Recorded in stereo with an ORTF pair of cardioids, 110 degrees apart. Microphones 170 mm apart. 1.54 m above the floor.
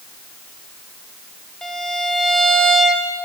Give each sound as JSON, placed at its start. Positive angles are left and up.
{"t": 1.6, "sound": "a violin", "azimuth_deg": 5, "distance_m": 0.7}